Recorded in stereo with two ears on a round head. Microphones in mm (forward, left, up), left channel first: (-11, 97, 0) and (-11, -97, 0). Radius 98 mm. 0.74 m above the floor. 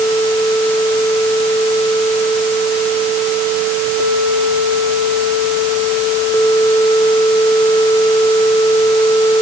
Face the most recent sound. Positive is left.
No sound to turn to.